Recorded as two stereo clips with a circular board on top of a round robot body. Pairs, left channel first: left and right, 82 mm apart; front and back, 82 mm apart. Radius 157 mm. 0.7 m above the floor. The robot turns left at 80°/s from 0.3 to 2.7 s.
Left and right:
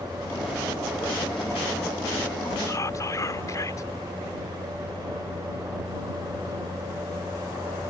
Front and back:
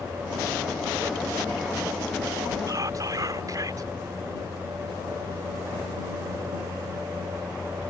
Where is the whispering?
140° left.